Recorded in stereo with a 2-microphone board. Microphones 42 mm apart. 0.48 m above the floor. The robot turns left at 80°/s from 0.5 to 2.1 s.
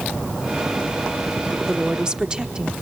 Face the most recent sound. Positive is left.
turn(degrees=-20)  # may be behind; listen again after turning